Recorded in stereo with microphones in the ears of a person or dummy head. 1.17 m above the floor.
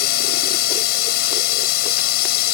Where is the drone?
65° left (ahead or behind).